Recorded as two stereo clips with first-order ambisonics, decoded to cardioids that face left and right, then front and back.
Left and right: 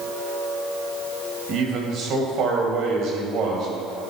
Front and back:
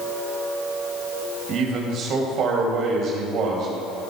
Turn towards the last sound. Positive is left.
turn(degrees=-135)